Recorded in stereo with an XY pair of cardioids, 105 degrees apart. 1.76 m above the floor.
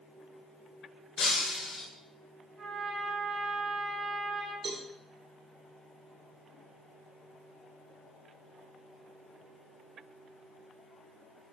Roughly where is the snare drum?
I don't hear a snare drum.